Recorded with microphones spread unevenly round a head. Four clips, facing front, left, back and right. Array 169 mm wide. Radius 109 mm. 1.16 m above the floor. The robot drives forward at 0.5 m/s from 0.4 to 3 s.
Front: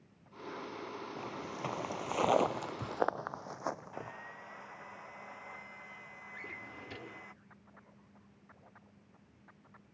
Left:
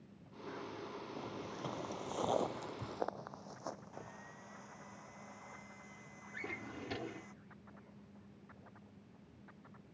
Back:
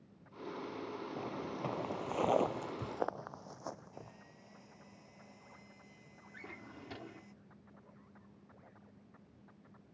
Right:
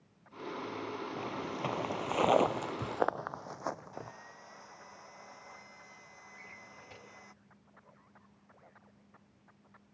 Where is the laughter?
I don't hear laughter.